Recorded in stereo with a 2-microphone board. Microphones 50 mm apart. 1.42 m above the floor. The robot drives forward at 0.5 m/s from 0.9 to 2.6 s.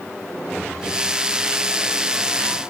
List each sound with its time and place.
Only background noise.